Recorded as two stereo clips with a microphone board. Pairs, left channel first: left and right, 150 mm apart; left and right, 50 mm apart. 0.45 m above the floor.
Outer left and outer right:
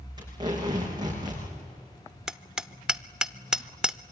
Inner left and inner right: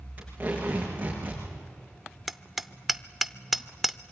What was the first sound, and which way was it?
Tape being pulled, 30° right (ahead or behind).